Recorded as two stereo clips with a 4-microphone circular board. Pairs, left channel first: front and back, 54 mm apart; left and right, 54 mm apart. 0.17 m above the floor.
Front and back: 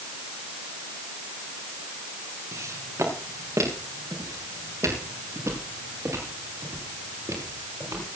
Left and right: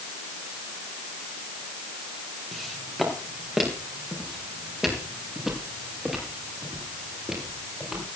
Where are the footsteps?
175° right, 5.5 m; by 8.1 s 170° right, 11 m.